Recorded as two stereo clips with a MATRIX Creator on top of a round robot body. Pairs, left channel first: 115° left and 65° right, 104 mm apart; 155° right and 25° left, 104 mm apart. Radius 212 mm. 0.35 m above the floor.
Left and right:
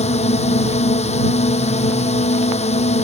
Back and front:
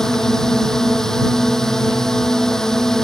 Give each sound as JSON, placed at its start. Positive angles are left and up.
{"t": 0.0, "sound": "a drone", "azimuth_deg": 120}